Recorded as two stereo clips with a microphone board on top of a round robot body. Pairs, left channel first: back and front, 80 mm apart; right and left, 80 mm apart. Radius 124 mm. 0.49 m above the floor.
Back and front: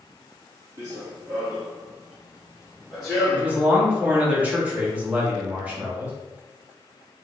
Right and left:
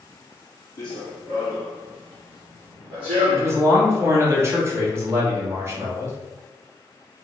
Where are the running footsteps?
55° right, 0.5 m; by 3.6 s 90° left, 1.5 m.